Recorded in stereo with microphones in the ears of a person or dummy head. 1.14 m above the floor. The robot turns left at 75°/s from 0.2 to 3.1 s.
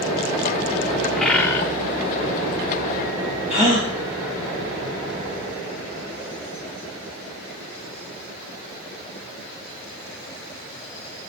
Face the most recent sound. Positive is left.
turn(degrees=40)  # may be behind; listen again after turning